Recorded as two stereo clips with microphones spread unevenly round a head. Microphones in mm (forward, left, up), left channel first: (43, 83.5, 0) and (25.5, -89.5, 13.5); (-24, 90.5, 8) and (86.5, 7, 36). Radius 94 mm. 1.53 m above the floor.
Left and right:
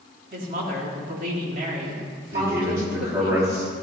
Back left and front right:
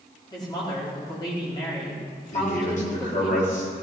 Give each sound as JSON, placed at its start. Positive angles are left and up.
{"t": 0.3, "sound": "a woman speaking", "azimuth_deg": -145, "distance_m": 3.5}
{"t": 2.3, "sound": "a man speaking", "azimuth_deg": -170, "distance_m": 3.5}